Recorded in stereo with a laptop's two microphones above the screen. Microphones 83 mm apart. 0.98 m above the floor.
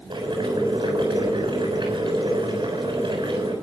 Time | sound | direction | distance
0.1 | boiling | 70° right (ahead or behind) | 7 m